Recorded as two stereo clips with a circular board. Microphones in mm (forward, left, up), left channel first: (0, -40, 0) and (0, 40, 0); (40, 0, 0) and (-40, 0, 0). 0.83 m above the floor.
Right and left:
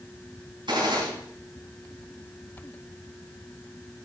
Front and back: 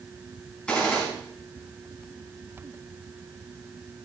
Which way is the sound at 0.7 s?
75° left.